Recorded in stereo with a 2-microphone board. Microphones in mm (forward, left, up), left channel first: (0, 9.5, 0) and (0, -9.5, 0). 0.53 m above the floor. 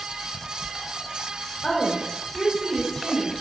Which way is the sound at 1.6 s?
45° left (ahead or behind).